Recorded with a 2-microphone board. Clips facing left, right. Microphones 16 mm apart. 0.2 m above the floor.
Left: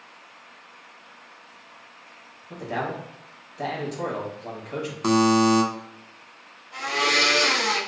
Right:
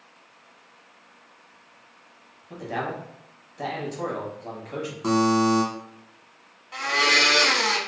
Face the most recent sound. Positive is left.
turn(degrees=-40)  # may be behind; listen again after turning